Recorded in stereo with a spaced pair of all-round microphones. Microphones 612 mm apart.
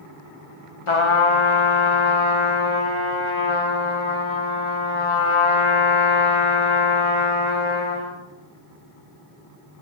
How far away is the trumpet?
About 1.1 m.